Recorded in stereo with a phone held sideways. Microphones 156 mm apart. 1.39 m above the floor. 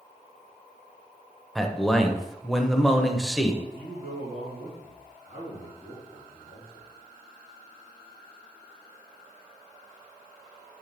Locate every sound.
1.6 s a man speaking: centre (ahead or behind), 0.9 m
3.6 s a man speaking: 55° right (ahead or behind), 2.5 m